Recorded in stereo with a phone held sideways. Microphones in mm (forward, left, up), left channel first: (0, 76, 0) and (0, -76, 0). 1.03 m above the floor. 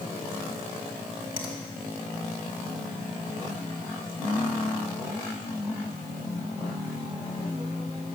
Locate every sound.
1.4 s a finger snap: 65° left (ahead or behind), 2.5 m